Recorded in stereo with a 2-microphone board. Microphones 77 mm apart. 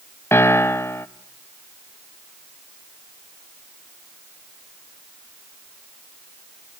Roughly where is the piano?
Left.